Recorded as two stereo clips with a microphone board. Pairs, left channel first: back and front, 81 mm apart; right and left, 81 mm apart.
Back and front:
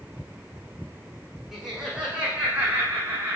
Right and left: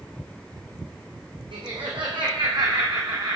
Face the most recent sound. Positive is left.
turn(degrees=65)